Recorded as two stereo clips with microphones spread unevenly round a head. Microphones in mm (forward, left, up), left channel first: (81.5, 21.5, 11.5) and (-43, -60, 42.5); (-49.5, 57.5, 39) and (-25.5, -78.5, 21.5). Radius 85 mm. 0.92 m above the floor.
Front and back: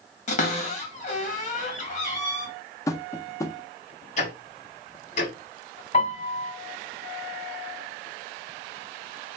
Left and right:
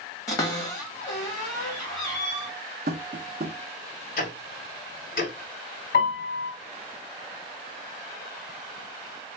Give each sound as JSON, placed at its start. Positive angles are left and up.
{"t": 0.3, "sound": "a cupboard door", "azimuth_deg": 30, "distance_m": 1.7}
{"t": 2.9, "sound": "tapping", "azimuth_deg": -45, "distance_m": 0.5}
{"t": 4.2, "sound": "ticking", "azimuth_deg": 85, "distance_m": 1.3}
{"t": 5.9, "sound": "a piano", "azimuth_deg": 75, "distance_m": 2.0}